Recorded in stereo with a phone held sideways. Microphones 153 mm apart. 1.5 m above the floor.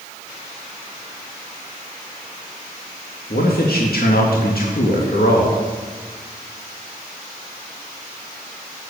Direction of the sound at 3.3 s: 80° left.